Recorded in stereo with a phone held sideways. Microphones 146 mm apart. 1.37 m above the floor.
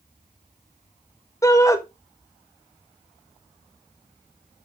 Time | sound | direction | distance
1.4 | a shout | 20° left (ahead or behind) | 1.4 m